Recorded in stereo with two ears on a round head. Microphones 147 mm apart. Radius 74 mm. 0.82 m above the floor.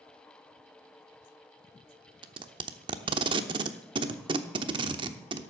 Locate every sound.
2.2 s tape being pulled: 30° right (ahead or behind), 0.8 m